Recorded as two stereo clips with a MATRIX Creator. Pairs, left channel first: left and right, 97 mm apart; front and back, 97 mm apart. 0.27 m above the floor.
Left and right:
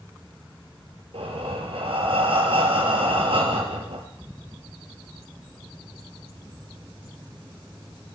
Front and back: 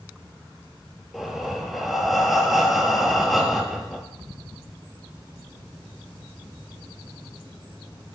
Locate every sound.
1.1 s breathing: 90° right, 3.5 m